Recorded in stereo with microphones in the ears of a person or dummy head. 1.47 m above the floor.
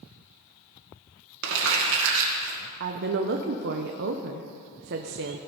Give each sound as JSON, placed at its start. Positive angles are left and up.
{"t": 1.4, "sound": "crumpling", "side_deg": -70, "distance_m": 2.0}
{"t": 2.8, "sound": "a woman speaking", "side_deg": -55, "distance_m": 0.7}